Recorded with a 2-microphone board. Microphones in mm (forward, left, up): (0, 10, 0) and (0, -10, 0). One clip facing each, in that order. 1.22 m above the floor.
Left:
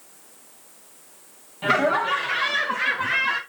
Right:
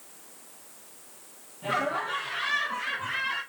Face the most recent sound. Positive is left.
turn(degrees=65)  # may be behind; listen again after turning